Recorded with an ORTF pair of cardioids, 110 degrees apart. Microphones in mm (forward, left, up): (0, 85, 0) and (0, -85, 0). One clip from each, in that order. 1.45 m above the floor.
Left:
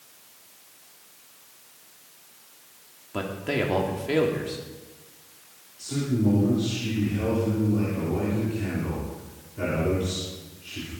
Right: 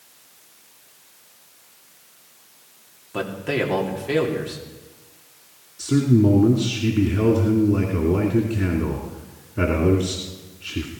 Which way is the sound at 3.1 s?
5° right.